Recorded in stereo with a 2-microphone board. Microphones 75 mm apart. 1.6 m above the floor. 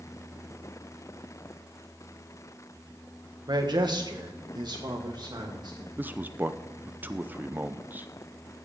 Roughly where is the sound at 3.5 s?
Right.